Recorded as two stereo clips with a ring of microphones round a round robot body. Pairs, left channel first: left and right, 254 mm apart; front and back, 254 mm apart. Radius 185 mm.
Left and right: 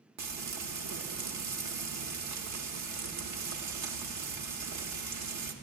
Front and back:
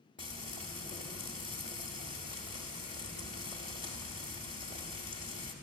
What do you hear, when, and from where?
0.2 s frying: 70° right, 1.0 m